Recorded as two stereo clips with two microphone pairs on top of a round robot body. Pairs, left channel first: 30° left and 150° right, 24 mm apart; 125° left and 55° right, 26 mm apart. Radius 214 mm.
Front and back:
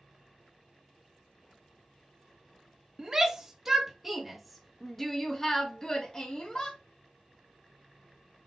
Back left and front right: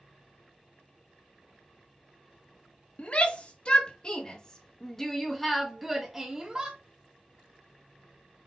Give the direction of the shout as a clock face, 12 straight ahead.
7 o'clock.